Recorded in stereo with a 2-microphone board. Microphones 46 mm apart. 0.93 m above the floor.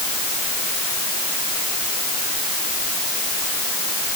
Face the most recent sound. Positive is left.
No sound to turn to.